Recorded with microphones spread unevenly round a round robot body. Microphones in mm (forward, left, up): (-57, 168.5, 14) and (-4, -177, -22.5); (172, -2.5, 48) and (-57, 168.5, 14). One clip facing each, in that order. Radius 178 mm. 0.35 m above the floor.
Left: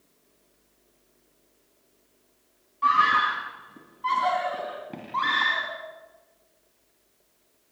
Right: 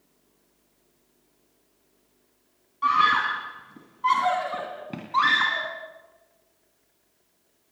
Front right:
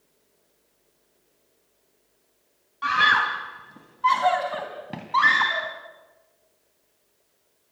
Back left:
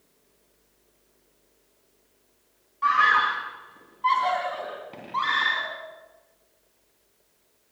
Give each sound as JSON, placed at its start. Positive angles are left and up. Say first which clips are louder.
{"t": 2.8, "sound": "a scream", "louder": "even, back left 1 dB", "azimuth_deg": 0, "distance_m": 2.5}